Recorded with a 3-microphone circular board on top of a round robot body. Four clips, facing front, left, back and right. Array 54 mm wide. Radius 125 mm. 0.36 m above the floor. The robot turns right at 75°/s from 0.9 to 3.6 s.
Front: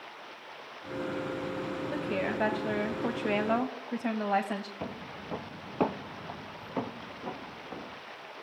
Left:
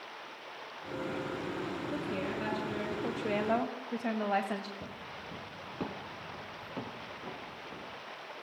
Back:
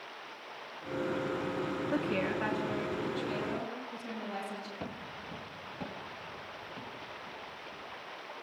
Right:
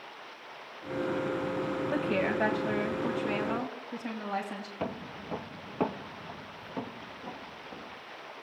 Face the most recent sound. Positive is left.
turn(degrees=5)